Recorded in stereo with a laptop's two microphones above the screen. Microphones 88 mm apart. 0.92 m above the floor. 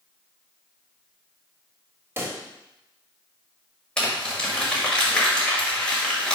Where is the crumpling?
10° left (ahead or behind), 1.6 m.